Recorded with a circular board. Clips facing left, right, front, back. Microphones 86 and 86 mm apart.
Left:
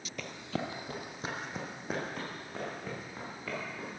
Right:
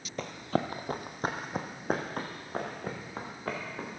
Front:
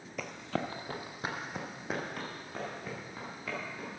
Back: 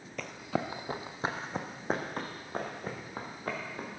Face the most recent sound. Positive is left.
turn(degrees=-135)